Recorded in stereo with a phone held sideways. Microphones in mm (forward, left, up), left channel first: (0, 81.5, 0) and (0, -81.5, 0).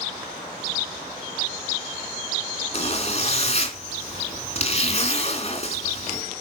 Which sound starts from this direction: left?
A zipper, at 2.7 s.